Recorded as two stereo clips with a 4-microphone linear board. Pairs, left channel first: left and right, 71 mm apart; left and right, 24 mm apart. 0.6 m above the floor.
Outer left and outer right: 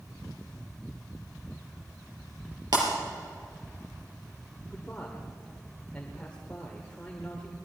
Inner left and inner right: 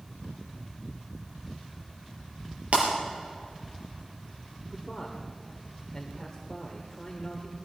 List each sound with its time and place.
2.7 s breaking glass: 75° right (ahead or behind), 4 m
4.7 s a man speaking: 15° left (ahead or behind), 1.5 m